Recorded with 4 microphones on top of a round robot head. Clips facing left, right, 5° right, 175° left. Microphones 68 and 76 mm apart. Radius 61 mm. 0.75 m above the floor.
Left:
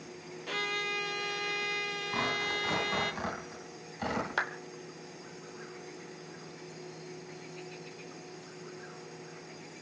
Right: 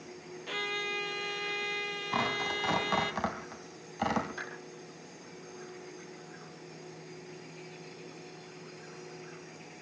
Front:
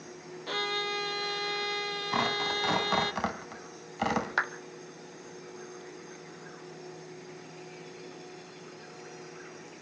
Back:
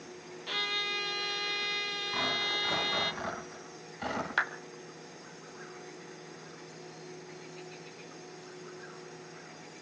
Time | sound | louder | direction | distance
0.5 | a violin | left 1 dB, front 4 dB | 10° left | 0.7 m
2.1 | tearing paper | right 1 dB, front 4 dB | 40° right | 3 m
4.4 | a clap | left 8 dB, back 2 dB | 70° left | 2.5 m